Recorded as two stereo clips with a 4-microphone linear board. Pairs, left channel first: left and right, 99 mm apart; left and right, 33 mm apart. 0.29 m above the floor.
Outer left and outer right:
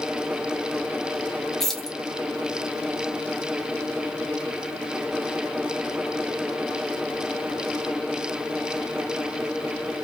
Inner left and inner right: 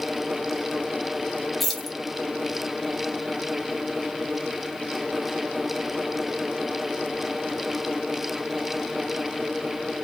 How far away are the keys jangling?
About 0.6 m.